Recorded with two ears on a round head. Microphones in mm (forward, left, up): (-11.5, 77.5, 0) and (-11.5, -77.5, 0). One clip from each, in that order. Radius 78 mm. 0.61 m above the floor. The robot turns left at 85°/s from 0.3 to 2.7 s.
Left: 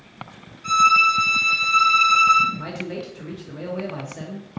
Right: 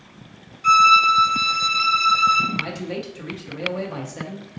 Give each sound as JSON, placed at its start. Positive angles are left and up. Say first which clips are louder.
{"t": 0.6, "sound": "a violin", "louder": "right 2 dB", "azimuth_deg": -120, "distance_m": 1.1}
{"t": 2.5, "sound": "a man speaking", "louder": "right 4 dB", "side_deg": -20, "distance_m": 0.6}